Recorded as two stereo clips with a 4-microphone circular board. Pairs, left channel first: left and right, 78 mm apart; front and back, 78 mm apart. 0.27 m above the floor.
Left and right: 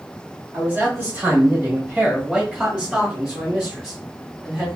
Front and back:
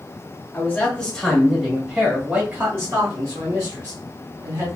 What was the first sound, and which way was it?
A man speaking, 50° right.